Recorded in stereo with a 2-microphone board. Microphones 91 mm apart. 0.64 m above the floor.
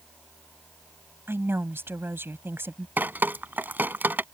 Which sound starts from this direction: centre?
Dripping, at 3.0 s.